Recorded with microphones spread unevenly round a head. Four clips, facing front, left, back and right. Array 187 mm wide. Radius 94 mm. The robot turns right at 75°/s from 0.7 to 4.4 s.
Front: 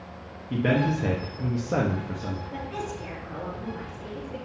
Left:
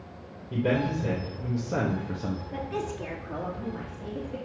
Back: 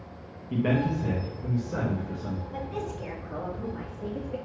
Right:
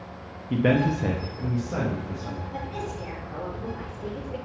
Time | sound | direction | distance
0.5 | a man speaking | 65° right | 1.1 m
2.5 | a woman speaking | 35° left | 2.5 m